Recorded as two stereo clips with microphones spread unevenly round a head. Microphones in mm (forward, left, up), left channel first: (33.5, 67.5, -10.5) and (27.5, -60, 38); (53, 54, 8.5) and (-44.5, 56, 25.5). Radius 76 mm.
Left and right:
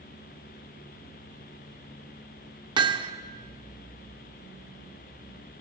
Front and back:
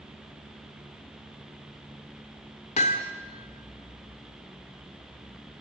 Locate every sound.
2.8 s hammering: 40° right, 1.6 m